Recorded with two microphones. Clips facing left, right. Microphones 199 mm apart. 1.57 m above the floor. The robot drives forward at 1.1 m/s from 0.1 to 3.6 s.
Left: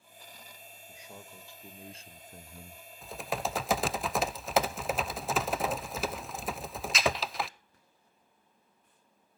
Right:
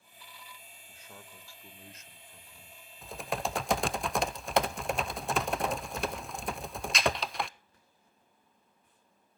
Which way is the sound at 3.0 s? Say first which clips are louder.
Even; centre (ahead or behind).